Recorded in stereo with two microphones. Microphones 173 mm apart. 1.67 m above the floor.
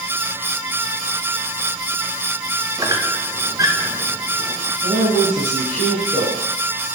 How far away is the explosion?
No explosion in this recording.